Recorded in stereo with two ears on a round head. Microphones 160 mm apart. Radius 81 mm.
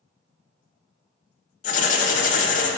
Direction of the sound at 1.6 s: 45° left (ahead or behind).